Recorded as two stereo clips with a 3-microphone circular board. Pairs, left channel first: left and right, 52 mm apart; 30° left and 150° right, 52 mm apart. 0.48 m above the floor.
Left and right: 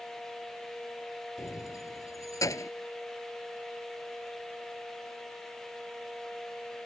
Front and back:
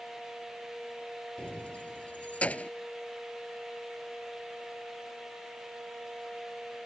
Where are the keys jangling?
100° left; by 2.7 s 95° left.